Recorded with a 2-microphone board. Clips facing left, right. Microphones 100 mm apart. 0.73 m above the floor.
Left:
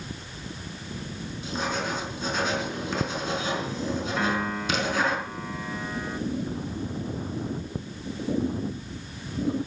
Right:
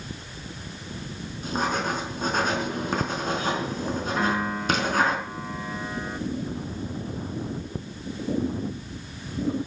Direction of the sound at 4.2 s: 10° right (ahead or behind).